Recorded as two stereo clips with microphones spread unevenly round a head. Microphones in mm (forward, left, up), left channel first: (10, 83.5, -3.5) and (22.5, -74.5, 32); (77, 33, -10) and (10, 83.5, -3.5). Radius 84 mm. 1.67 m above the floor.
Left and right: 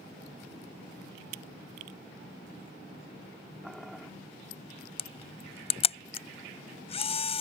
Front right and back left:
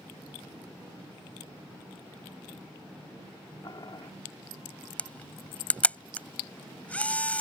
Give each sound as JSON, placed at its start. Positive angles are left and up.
{"t": 3.6, "sound": "boiling", "azimuth_deg": 0}
{"t": 5.0, "sound": "a camera shutter", "azimuth_deg": 40}